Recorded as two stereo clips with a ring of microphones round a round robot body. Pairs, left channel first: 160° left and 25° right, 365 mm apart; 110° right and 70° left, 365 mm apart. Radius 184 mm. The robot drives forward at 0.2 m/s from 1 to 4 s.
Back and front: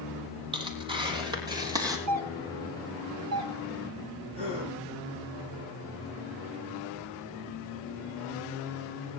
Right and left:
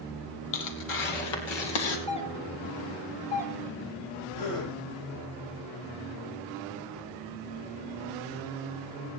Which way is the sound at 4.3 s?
95° right.